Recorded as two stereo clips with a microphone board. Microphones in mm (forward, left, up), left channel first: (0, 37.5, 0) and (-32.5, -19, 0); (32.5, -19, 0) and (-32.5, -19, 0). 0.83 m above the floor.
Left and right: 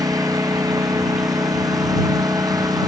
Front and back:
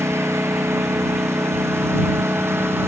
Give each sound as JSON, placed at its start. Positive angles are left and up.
{"t": 0.0, "sound": "a lawn mower", "azimuth_deg": -135}